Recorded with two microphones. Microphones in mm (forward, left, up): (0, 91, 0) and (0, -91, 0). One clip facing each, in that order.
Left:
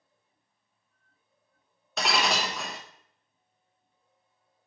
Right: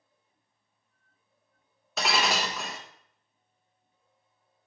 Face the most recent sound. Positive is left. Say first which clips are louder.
# even
turn(degrees=0)  # may be behind; listen again after turning